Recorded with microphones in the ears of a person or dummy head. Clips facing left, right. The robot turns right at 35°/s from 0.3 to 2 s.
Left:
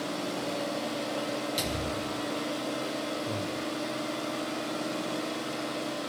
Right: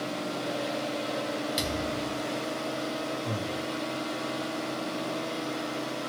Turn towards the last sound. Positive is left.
turn(degrees=-10)  # may be behind; listen again after turning